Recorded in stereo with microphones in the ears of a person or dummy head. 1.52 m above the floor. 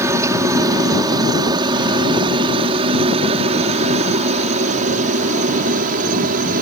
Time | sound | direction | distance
0.0 | a helicopter | 15° right (ahead or behind) | ?